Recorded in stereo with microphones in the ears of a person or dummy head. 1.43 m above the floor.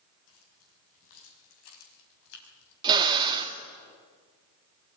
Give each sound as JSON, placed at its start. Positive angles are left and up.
{"t": 0.3, "sound": "keys jangling", "side_deg": 80, "distance_m": 7.5}
{"t": 2.8, "sound": "a drill", "side_deg": -25, "distance_m": 1.5}